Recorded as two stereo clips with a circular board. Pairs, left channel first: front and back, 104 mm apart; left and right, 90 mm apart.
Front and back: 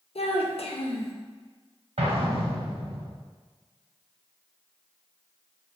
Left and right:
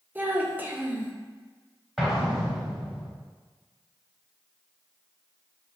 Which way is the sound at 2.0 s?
Straight behind.